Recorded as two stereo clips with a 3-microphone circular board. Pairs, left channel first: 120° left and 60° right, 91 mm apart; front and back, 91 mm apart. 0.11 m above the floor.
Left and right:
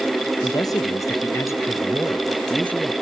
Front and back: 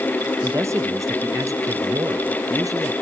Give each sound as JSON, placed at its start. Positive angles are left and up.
{"t": 0.4, "sound": "a man speaking", "azimuth_deg": 135, "distance_m": 1.8}